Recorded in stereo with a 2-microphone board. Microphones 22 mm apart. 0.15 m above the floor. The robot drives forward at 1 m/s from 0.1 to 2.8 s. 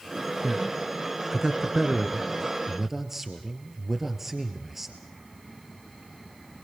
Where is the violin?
No violin in this recording.